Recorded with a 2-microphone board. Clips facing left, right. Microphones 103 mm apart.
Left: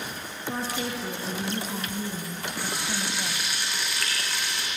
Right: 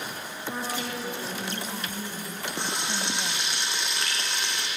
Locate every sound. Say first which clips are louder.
0.5 s a woman speaking: left 2 dB; 15° left (ahead or behind), 3 m; by 3.5 s 5° right (ahead or behind), 1.6 m
2.6 s frying: right 1 dB; 20° right (ahead or behind), 3.5 m